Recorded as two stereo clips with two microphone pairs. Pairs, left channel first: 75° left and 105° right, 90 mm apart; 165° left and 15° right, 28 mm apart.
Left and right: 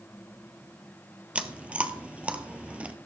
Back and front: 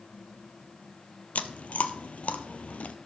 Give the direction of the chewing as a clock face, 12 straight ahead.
6 o'clock.